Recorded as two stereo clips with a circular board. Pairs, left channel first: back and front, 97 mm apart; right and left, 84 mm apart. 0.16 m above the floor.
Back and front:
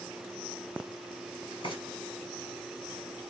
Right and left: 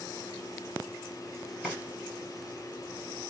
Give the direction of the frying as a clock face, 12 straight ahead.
6 o'clock.